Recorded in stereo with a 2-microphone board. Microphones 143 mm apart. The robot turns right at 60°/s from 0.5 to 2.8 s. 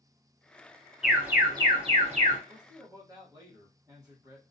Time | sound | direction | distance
1.0 | an alarm | 175° right | 0.8 m
2.5 | a man speaking | 30° right (ahead or behind) | 1.0 m